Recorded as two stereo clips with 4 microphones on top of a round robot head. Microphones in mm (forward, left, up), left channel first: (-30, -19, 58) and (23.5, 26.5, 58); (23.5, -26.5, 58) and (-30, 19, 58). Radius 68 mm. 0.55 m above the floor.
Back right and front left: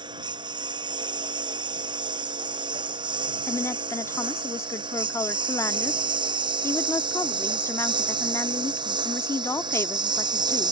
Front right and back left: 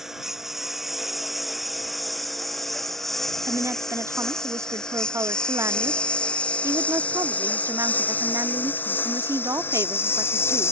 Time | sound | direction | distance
0.0 | a lawn mower | 55° left | ?
3.5 | a woman speaking | 175° left | ?